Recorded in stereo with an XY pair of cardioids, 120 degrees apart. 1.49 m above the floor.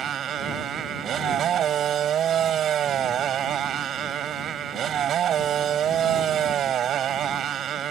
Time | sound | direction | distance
0.0 | a motorcycle | 60° right | ?